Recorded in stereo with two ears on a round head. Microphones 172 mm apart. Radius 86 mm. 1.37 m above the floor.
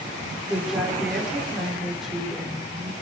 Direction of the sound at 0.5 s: Centre (ahead or behind).